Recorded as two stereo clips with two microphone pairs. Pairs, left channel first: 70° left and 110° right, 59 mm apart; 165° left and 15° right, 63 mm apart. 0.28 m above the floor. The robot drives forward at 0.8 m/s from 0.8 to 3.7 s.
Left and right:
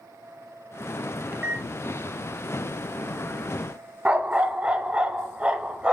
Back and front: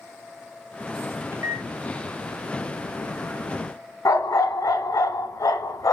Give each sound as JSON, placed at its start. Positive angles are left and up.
{"t": 1.3, "sound": "a microwave", "azimuth_deg": -50, "distance_m": 1.3}
{"t": 4.0, "sound": "a dog barking", "azimuth_deg": 180, "distance_m": 1.0}